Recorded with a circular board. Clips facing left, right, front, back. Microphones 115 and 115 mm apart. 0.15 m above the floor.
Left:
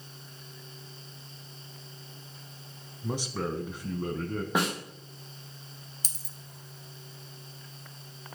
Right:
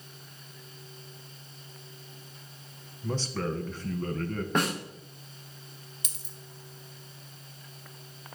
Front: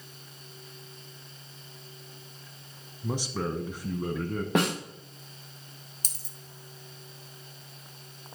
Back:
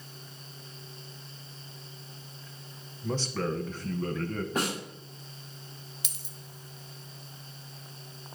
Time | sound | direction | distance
3.0 | a man speaking | 45° left | 1.0 m
4.5 | a snare drum | 10° left | 3.5 m
6.0 | a dropped coin | 45° left | 1.1 m